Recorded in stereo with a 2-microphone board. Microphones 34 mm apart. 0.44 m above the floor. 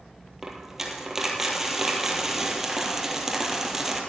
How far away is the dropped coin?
About 1.8 m.